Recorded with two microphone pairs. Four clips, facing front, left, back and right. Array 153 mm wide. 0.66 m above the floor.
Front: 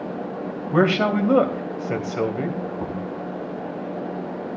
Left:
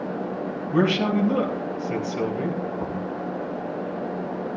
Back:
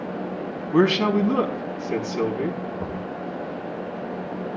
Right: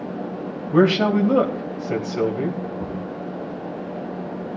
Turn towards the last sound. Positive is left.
turn(degrees=25)